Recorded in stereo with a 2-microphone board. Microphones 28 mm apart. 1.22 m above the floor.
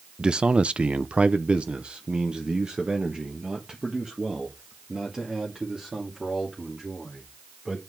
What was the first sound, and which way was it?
A man speaking, 20° right (ahead or behind).